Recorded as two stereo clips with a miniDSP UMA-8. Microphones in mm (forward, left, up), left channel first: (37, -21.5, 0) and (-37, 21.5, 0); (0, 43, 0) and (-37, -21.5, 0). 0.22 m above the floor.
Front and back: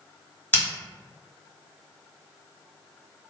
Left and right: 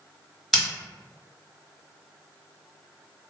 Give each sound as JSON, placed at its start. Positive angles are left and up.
{"t": 0.5, "sound": "scissors", "azimuth_deg": -25, "distance_m": 1.2}